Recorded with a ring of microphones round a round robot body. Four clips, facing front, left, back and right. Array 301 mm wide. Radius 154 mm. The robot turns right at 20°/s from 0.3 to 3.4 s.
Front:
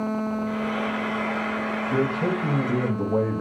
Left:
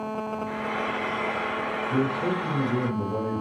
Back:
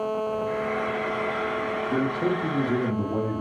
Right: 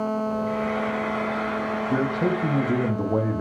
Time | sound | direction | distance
0.5 | frying | 45° left | 3 m
1.9 | a man speaking | 100° right | 0.8 m